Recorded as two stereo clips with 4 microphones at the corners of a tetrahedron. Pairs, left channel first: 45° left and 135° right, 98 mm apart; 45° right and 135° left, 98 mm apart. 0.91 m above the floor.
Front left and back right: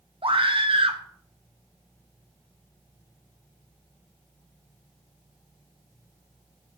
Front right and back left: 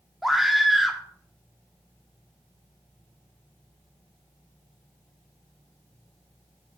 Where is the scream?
135° right, 1.7 m.